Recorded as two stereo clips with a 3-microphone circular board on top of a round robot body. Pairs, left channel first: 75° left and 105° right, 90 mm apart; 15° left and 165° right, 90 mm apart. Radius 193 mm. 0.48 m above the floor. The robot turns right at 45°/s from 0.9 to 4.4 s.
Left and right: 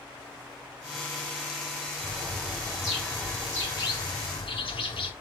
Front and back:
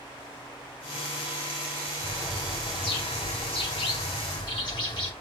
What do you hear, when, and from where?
2.0 s a bird: 55° right, 4.5 m; by 5.1 s 55° left, 4.5 m